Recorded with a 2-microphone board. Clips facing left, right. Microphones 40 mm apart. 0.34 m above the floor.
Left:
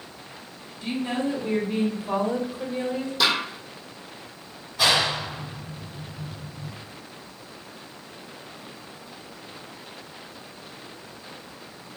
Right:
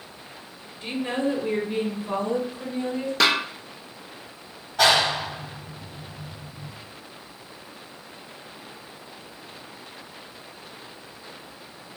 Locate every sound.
0.8 s a woman speaking: 35° right (ahead or behind), 1.3 m; by 3.1 s 25° left (ahead or behind), 1.4 m
3.2 s a snare drum: 65° right (ahead or behind), 1.1 m
4.8 s a clap: 60° right (ahead or behind), 1.9 m